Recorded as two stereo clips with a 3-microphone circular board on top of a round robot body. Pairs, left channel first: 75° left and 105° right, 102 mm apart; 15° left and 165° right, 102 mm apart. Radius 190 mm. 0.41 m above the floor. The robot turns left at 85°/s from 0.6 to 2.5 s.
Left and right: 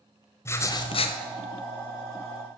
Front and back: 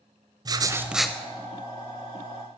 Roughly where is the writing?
Behind left.